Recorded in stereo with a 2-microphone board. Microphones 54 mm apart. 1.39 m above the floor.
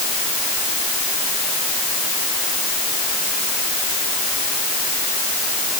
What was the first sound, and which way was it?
Only background noise.